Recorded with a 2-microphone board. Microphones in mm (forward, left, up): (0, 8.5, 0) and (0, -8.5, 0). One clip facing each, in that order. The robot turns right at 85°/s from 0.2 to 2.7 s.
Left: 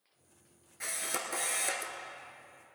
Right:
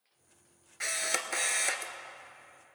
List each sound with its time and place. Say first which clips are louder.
0.8 s a camera shutter: right 4 dB; 120° right, 0.9 m; by 1.9 s 25° right, 0.9 m